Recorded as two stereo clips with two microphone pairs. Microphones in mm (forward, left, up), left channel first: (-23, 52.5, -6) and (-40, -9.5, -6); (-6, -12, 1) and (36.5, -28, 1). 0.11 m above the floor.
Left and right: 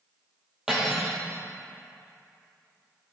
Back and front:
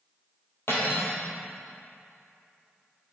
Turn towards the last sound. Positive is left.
turn(degrees=175)